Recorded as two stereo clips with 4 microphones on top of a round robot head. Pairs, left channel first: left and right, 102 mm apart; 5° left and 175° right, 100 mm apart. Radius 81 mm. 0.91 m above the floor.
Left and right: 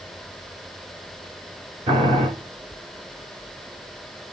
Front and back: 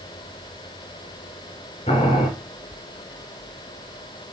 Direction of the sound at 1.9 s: 55° right.